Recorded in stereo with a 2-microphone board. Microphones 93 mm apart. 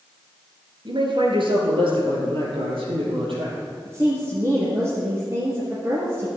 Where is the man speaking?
55° right (ahead or behind), 2.5 m; by 3.6 s 75° right (ahead or behind), 5.5 m.